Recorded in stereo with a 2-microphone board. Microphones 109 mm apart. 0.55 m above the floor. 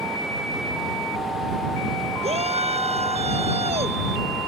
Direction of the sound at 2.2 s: 75° right (ahead or behind).